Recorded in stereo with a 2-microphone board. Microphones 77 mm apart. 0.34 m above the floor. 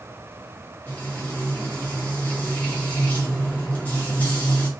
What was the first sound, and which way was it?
Frying, 20° left (ahead or behind).